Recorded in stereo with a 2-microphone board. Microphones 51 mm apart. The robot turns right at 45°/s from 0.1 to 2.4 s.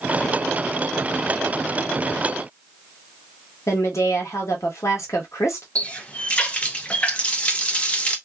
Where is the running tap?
25° left (ahead or behind), 0.6 m.